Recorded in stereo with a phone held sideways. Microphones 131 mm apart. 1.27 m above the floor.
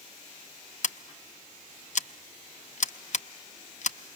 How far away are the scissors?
About 0.6 m.